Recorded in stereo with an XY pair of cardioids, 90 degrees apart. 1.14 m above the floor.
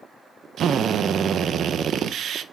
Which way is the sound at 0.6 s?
70° right.